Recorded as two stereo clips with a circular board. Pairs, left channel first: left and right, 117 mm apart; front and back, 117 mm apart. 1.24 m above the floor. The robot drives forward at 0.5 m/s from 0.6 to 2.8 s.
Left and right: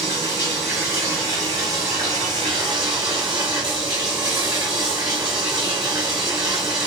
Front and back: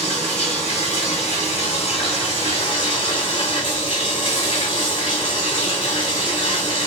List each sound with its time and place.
0.0 s running water: 25° right, 2.5 m; by 6.9 s 40° right, 1.7 m